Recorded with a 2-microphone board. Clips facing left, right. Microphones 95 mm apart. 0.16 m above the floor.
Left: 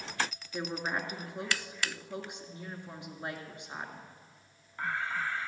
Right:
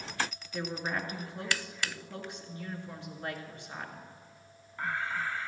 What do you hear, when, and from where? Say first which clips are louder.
0.5 s a woman speaking: even; 15° left (ahead or behind), 2 m